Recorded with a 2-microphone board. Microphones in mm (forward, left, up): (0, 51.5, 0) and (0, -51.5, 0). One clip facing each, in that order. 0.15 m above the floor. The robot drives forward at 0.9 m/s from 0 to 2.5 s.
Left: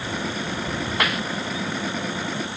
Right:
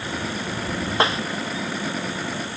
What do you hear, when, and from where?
1.0 s a snare drum: 30° right (ahead or behind)